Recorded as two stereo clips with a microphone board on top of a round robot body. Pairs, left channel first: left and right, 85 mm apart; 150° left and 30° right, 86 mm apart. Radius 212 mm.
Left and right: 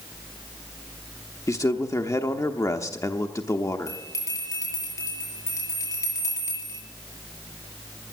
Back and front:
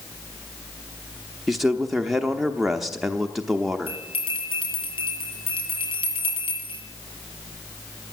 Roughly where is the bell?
Behind left.